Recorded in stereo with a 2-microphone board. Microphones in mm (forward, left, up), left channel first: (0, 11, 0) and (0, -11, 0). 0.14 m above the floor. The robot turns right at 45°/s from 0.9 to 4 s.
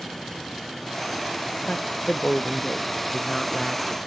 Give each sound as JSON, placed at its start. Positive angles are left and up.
{"t": 1.7, "sound": "a woman speaking", "azimuth_deg": 105}